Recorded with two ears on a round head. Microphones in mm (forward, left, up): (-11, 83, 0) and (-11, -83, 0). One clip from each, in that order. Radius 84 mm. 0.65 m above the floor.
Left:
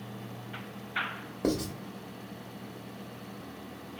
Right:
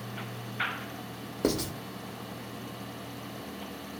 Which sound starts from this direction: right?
Writing, at 1.4 s.